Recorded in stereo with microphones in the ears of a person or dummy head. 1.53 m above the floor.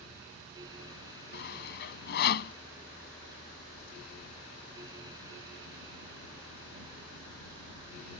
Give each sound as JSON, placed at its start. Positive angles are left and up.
{"t": 1.3, "sound": "sawing", "side_deg": 60}